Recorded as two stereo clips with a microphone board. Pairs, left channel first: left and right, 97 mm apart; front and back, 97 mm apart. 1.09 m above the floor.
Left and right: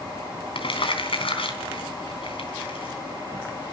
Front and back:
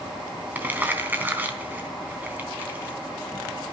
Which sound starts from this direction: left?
Crumpling, at 0.6 s.